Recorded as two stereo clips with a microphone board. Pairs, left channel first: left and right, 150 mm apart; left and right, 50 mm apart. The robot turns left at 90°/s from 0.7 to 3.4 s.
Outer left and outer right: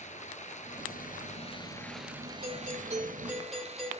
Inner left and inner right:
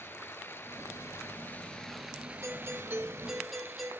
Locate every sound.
0.0 s running water: 115° left, 2.0 m; by 4.0 s 125° right, 2.0 m
2.4 s a doorbell: 90° right, 5.5 m; by 3.9 s straight behind, 5.5 m